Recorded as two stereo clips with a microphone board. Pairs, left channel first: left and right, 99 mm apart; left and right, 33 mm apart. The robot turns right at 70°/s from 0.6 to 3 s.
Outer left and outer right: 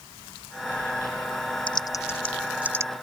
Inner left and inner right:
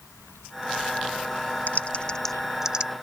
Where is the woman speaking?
No woman speaking in this recording.